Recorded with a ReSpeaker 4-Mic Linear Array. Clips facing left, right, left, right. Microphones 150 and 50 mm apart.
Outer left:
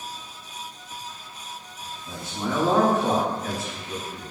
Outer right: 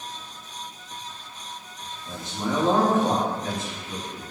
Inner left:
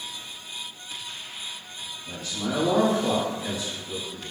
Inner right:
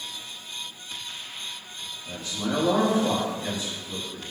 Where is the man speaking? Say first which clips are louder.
Outer right 1 dB, inner right 1 dB; 20° right (ahead or behind), 1.6 m.